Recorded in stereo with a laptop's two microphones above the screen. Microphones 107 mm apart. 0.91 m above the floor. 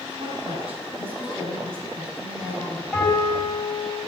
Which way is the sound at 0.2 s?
60° right (ahead or behind).